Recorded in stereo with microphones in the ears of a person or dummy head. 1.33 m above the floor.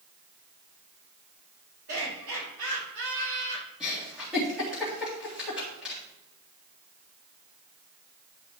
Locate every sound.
1.9 s laughter: 85° right, 4.5 m
3.8 s a giggle: 5° right (ahead or behind), 3 m